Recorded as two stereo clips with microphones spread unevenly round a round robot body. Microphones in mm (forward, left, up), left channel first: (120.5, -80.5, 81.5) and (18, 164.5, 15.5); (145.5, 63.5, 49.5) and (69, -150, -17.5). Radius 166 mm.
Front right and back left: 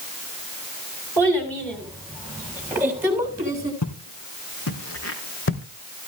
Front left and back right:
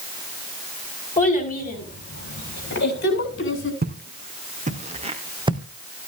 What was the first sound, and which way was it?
A child speaking, 15° left.